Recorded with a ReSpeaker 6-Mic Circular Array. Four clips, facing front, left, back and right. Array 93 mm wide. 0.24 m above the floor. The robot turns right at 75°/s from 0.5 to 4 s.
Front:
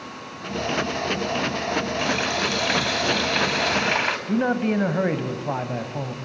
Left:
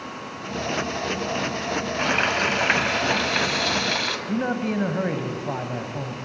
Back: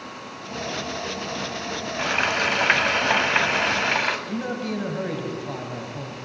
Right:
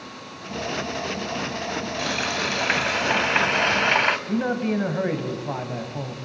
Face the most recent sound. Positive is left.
turn(degrees=5)